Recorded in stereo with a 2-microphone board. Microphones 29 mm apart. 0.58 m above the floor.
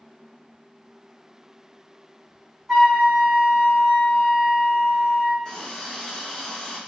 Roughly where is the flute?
Centre.